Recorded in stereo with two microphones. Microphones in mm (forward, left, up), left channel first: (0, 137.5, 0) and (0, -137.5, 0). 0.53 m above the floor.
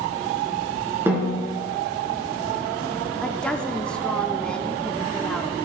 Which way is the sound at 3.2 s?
5° left (ahead or behind).